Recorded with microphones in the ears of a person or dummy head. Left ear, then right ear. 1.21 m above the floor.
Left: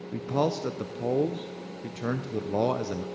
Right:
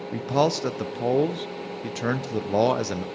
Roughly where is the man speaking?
Right.